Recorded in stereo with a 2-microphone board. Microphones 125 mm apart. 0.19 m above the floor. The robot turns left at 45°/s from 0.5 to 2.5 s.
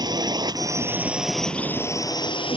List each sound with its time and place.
0.0 s a drone: 140° right; by 2.6 s 130° left